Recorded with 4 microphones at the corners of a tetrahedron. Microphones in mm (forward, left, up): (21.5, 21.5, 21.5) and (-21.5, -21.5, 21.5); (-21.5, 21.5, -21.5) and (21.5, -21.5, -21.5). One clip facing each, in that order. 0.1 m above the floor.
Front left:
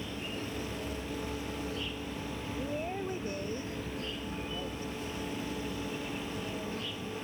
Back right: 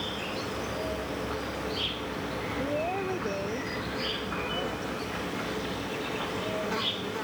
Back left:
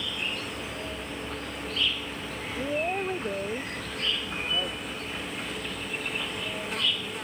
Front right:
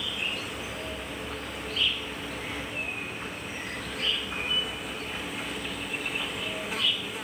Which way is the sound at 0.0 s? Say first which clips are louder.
Back right 5 dB, even; 130° right.